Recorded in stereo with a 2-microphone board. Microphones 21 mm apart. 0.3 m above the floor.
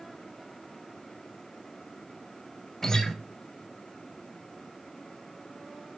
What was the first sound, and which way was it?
A guitar, 25° left (ahead or behind).